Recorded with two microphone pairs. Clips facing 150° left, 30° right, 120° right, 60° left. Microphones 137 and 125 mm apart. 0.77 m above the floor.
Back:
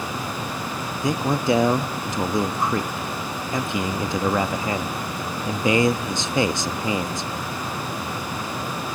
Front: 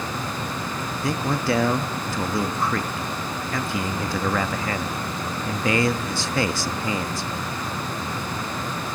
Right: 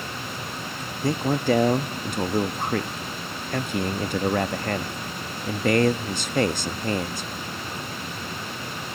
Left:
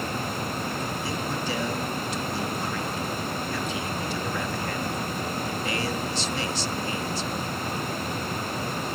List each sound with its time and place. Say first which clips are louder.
1.0 s a man speaking: back 3 dB, right 13 dB; 140° right, 0.7 m